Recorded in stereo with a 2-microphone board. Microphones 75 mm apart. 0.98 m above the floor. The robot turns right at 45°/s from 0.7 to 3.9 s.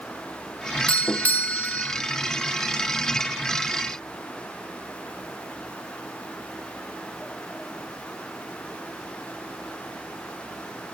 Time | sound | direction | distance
0.9 | a doorbell | 15° left (ahead or behind) | 0.6 m